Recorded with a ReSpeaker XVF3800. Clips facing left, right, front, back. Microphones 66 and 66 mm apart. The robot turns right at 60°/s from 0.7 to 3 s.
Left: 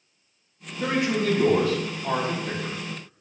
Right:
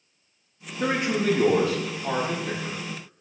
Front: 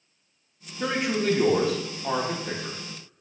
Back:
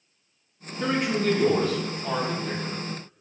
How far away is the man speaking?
About 0.7 m.